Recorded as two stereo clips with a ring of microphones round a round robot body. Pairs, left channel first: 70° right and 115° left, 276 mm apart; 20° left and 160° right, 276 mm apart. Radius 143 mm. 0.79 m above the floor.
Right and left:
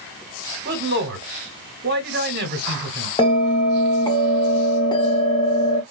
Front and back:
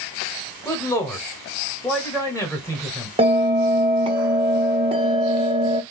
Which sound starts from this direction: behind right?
A bell, at 3.2 s.